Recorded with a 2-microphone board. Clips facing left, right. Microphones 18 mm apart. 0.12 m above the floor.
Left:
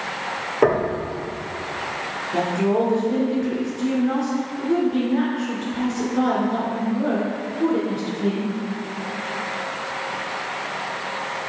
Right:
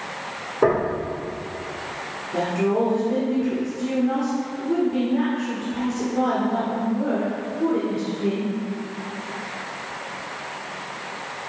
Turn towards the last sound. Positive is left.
turn(degrees=25)  # may be behind; listen again after turning